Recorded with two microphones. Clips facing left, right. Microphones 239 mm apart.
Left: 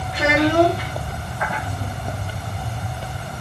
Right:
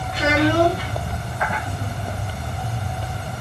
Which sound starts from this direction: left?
A child speaking, at 0.1 s.